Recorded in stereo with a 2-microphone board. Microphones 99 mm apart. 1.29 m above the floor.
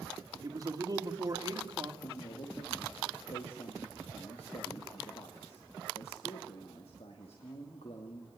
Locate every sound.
0.4 s a man speaking: 40° right (ahead or behind), 2.5 m
2.0 s a man speaking: 85° left, 2 m